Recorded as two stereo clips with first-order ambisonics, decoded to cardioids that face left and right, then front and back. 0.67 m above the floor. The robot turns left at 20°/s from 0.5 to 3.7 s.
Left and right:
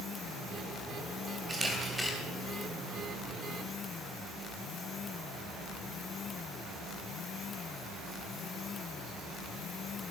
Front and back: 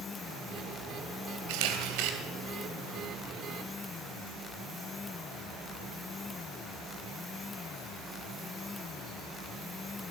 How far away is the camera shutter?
About 3 m.